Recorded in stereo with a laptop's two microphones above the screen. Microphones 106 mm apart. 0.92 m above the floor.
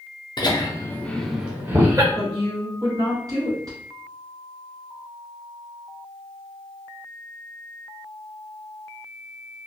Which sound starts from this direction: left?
Laughter, at 0.4 s.